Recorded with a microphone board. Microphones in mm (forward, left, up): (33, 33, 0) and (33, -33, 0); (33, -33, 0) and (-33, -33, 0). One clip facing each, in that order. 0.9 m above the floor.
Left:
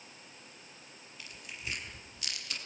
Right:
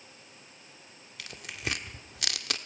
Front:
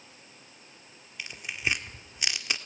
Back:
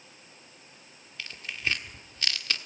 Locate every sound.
1.2 s tearing paper: 75° right, 1.4 m